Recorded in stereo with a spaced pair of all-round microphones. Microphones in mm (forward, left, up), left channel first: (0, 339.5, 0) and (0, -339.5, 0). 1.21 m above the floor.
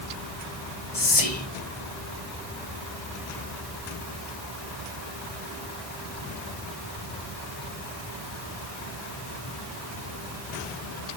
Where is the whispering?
55° left (ahead or behind), 1.4 m.